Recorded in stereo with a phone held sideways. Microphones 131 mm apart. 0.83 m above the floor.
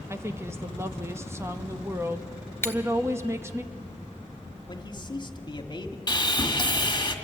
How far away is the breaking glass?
About 1.3 m.